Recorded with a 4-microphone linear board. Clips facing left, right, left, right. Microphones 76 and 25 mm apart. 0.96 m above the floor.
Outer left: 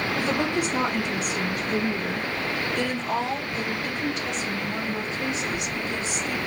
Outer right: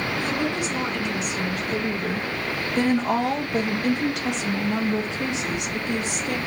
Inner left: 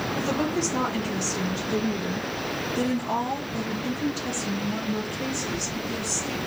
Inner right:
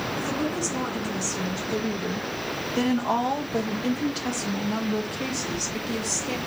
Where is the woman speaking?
40° left (ahead or behind), 1.5 m; by 6.4 s 75° right (ahead or behind), 2.5 m.